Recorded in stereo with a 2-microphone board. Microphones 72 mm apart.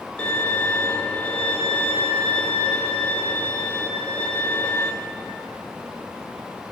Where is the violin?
20° left (ahead or behind), 0.9 m.